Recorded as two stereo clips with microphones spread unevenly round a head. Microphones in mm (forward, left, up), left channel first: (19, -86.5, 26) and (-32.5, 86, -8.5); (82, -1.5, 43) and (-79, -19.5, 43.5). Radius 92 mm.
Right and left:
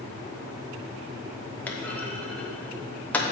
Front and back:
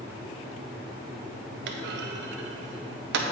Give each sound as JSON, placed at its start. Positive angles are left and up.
{"t": 1.7, "sound": "a clunk", "azimuth_deg": -155, "distance_m": 0.6}